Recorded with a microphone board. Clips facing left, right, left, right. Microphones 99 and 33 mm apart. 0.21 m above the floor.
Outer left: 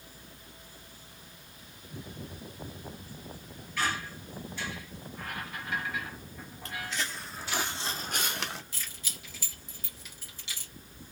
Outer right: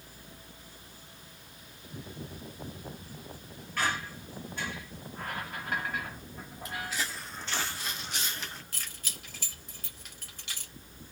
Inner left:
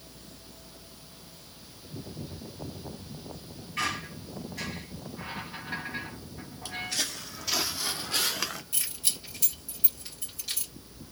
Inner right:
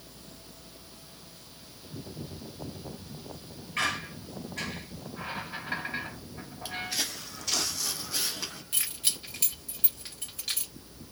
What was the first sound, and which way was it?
A squeak, 50° right (ahead or behind).